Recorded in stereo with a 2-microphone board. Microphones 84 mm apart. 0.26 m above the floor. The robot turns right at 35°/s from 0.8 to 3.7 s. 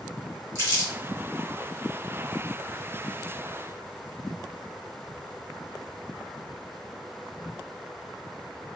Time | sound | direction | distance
0.6 | crumpling | 40° right (ahead or behind) | 1.8 m